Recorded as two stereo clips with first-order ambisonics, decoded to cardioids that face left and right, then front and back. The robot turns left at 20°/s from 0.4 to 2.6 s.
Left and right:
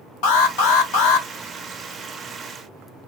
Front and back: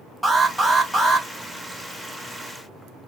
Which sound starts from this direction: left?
An alarm, at 0.2 s.